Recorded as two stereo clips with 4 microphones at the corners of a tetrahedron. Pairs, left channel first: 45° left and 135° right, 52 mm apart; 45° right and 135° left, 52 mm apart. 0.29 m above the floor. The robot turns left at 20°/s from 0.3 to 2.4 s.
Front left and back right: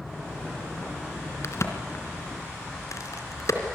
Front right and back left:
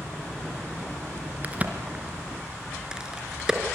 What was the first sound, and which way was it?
A crack, 80° left.